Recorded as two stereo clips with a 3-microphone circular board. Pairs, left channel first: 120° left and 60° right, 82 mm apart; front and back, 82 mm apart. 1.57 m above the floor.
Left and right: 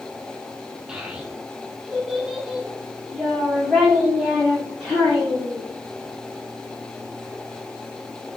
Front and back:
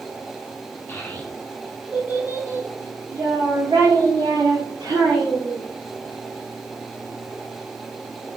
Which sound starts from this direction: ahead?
A child speaking, at 0.9 s.